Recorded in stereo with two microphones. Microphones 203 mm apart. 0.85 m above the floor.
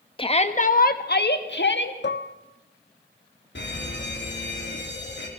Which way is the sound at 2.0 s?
60° left (ahead or behind).